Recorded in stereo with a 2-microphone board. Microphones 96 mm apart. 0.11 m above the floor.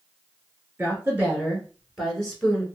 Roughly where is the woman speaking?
Right.